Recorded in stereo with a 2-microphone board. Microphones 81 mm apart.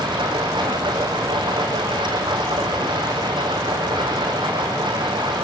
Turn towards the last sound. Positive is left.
turn(degrees=-70)  # may be behind; listen again after turning